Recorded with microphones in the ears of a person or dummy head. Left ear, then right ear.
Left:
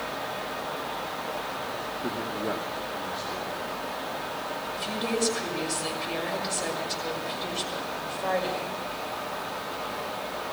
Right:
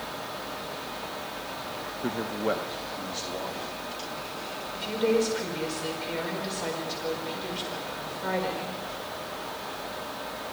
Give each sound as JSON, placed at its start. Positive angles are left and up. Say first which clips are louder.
{"t": 2.0, "sound": "a man speaking", "louder": "right 4 dB", "side_deg": -40, "distance_m": 0.9}
{"t": 4.7, "sound": "a woman speaking", "louder": "right 5 dB", "side_deg": -5, "distance_m": 5.0}